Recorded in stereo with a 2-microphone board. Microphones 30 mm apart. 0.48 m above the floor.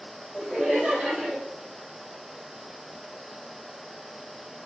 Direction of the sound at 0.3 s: 25° right (ahead or behind).